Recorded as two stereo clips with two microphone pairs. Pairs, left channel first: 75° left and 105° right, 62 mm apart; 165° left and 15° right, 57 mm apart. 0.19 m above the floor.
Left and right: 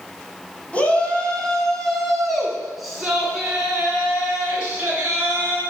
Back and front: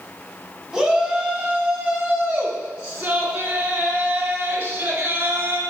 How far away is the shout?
About 1.6 m.